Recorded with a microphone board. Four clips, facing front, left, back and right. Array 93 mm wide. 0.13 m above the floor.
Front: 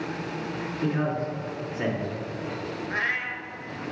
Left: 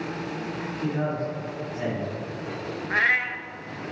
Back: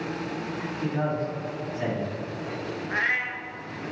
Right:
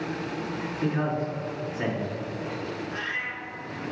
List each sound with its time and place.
0.8 s a man speaking: 45° right, 1.9 m
2.9 s a cat meowing: 90° left, 0.5 m